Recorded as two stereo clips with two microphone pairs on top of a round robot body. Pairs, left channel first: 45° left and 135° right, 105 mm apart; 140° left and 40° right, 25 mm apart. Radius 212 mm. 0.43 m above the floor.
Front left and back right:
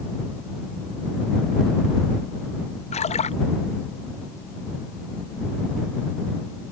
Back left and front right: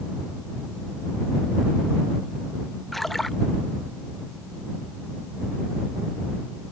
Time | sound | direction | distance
2.9 | a splash | 65° left | ?